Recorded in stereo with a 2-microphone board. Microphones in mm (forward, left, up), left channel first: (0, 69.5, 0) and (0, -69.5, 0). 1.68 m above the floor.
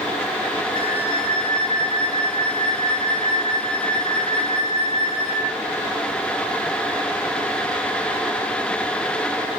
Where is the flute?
55° right (ahead or behind), 8.5 m.